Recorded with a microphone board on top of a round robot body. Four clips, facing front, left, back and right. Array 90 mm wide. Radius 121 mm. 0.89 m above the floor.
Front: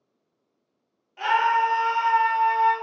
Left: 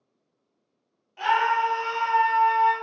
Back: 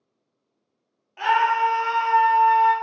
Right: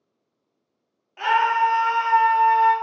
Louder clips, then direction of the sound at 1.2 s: Right 3 dB, back 1 dB; 130° right.